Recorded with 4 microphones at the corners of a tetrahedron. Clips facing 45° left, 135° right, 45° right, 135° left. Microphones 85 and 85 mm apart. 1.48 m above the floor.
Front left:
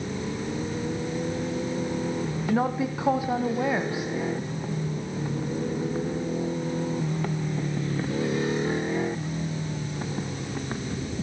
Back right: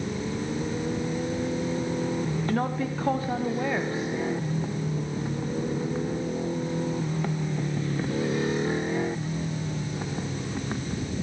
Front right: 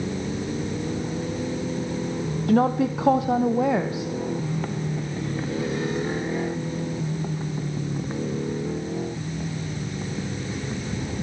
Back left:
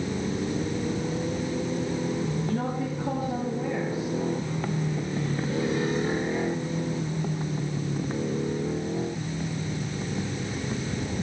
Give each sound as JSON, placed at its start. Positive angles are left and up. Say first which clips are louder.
{"t": 2.5, "sound": "a woman speaking", "louder": "front left 5 dB, front right 8 dB", "azimuth_deg": -35, "distance_m": 0.7}